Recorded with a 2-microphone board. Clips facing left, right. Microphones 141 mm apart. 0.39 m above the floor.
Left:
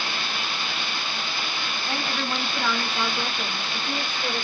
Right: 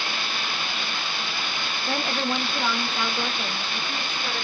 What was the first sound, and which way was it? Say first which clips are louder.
A woman speaking: right 3 dB; 35° right (ahead or behind).